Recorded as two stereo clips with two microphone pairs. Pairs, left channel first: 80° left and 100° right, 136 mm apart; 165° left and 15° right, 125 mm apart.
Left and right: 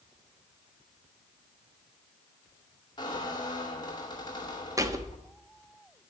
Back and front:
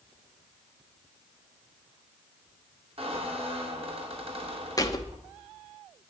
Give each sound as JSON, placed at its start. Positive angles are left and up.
{"t": 3.0, "sound": "a squeak", "azimuth_deg": 25, "distance_m": 2.5}
{"t": 4.8, "sound": "a thud", "azimuth_deg": -155, "distance_m": 1.0}